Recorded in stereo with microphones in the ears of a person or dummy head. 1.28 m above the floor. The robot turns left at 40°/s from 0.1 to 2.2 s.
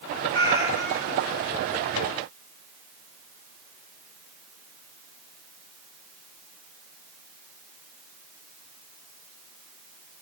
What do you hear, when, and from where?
0.3 s a cat meowing: 165° left, 2.5 m; by 1.2 s 130° left, 2.5 m